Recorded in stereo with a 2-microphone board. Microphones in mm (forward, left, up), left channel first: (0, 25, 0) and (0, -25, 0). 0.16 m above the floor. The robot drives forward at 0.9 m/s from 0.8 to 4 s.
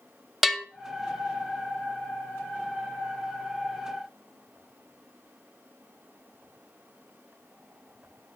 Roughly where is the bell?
Centre.